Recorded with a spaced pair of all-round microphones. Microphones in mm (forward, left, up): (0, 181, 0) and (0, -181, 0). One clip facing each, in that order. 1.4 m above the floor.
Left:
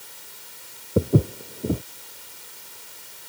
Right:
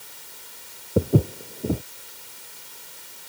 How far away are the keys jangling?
I don't hear keys jangling.